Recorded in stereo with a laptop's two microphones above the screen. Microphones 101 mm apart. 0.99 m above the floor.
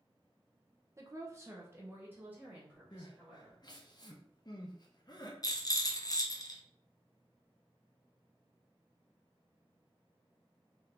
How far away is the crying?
About 0.6 m.